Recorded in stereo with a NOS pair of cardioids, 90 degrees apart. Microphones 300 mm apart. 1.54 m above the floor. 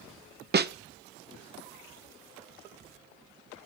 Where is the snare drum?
35° right, 1.3 m.